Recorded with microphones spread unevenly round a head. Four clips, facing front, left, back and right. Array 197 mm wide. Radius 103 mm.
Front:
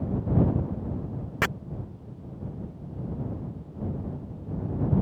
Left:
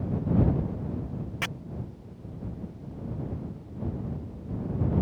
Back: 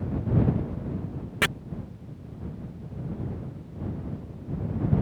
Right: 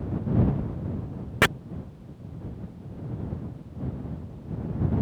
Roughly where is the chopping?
Right.